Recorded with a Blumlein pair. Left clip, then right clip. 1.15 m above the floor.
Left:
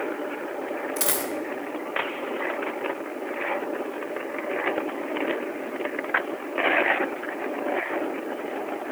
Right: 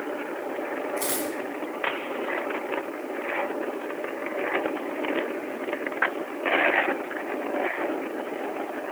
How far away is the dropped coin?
About 2.5 m.